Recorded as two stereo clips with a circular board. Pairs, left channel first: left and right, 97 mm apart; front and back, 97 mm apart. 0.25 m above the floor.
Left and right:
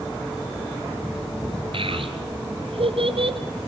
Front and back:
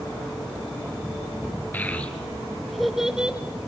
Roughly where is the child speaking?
Right.